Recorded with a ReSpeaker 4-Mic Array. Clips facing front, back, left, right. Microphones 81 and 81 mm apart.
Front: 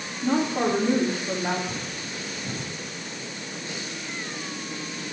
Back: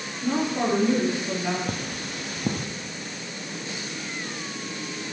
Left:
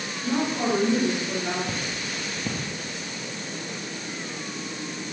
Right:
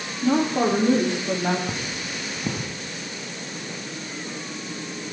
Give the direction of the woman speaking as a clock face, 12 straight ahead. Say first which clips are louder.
Front 1 dB, right 5 dB; 2 o'clock.